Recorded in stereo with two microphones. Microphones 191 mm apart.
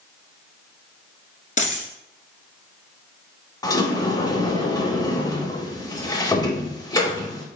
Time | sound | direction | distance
1.6 | a dropped coin | 40° left (ahead or behind) | 1.0 m
3.6 | a sliding door | 20° left (ahead or behind) | 0.6 m